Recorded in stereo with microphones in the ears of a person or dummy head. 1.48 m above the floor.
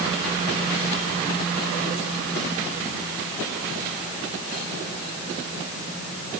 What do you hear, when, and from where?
Only background noise.